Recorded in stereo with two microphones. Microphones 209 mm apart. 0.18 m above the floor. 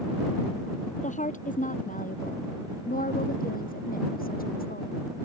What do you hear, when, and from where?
1.0 s a woman speaking: 35° left (ahead or behind); by 5.0 s 45° left (ahead or behind)